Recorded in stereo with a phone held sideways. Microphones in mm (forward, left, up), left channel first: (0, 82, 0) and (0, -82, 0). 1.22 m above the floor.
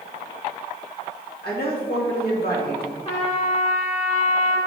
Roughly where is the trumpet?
Left.